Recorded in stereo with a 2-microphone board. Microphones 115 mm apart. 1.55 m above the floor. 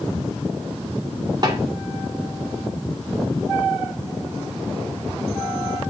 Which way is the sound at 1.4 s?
35° right (ahead or behind).